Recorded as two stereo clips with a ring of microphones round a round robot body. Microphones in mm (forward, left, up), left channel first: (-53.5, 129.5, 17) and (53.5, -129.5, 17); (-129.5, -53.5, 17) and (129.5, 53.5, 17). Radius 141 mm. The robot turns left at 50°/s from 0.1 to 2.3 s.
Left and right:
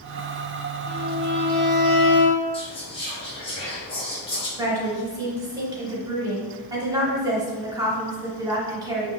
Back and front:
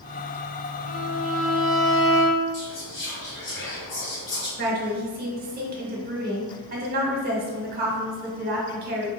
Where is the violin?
65° left, 1.0 m; by 2.4 s 10° right, 1.0 m.